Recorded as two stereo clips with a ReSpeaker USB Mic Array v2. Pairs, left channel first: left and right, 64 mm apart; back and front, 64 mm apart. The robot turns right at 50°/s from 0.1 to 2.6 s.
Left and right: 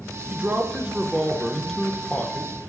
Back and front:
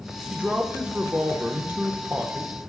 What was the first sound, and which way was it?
A man speaking, 65° right.